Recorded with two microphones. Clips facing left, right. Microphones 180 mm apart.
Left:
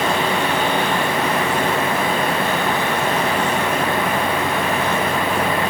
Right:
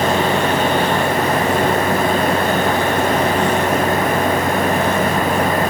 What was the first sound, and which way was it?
Only background noise.